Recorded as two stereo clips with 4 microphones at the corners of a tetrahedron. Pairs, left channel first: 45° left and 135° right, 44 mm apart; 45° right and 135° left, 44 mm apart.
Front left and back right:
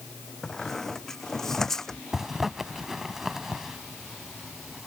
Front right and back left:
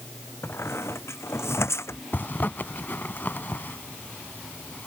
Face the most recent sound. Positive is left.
turn(degrees=-55)